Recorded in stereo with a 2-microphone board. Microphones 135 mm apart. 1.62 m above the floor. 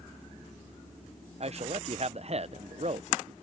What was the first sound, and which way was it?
A man speaking, 50° right (ahead or behind).